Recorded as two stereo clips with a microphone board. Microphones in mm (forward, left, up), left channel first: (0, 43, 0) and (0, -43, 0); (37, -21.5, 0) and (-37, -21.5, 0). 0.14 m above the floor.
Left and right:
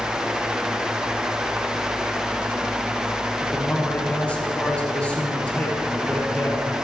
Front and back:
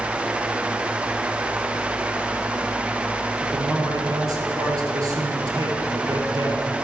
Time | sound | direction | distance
3.4 | a man speaking | 165° left | 3 m